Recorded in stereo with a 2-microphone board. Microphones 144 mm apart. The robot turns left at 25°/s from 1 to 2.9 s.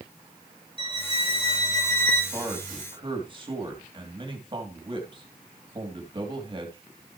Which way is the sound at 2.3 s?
20° right (ahead or behind).